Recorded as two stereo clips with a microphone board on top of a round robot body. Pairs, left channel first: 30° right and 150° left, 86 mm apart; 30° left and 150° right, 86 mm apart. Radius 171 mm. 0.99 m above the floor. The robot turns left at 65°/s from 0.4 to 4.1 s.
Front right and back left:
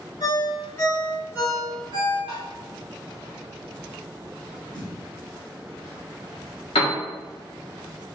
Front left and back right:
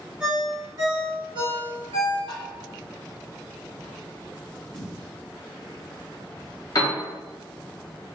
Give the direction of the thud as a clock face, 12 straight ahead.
12 o'clock.